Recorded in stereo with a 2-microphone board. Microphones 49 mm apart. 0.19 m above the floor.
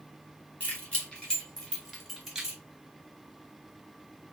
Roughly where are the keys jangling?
Left.